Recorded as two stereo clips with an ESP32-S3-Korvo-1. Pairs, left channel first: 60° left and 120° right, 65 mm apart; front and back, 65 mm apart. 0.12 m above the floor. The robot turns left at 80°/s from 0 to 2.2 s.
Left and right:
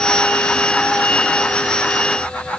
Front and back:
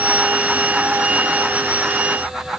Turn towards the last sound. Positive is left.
No sound to turn to.